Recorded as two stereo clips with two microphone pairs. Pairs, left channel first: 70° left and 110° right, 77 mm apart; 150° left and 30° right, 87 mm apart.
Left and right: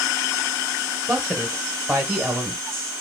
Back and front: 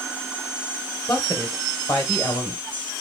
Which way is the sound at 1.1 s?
155° right.